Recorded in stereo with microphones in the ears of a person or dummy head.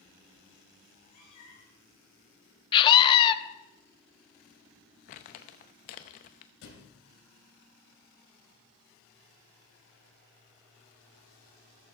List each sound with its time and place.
0.9 s a cat meowing: 55° left (ahead or behind), 4 m
2.7 s a scream: 25° left (ahead or behind), 0.8 m
5.1 s crumpling: 35° left (ahead or behind), 0.7 m
6.6 s a thud: 70° left (ahead or behind), 2.5 m